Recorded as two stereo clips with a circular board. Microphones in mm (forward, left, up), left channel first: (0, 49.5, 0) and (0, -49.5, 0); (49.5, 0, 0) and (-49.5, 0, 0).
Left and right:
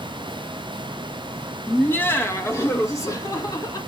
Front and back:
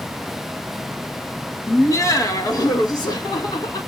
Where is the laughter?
30° left, 1.3 m; by 3.8 s 40° left, 3 m.